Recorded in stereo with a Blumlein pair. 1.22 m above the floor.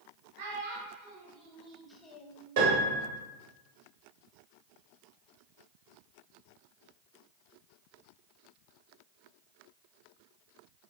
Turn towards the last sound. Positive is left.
turn(degrees=-60)